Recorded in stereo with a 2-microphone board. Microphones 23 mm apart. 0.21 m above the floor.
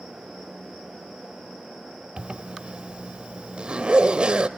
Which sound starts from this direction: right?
A zipper, at 2.2 s.